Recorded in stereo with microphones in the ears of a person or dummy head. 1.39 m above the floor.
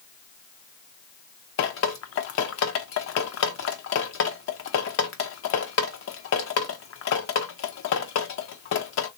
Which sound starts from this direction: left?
Dripping, at 1.6 s.